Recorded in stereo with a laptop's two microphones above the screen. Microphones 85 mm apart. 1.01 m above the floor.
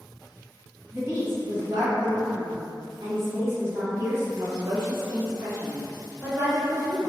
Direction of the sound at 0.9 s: 30° right (ahead or behind).